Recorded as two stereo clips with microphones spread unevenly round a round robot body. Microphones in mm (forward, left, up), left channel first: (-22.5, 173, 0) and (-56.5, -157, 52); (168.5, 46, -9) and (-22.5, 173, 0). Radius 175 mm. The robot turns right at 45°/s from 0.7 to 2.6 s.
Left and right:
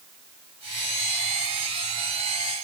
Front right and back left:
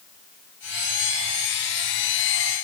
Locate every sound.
Only background noise.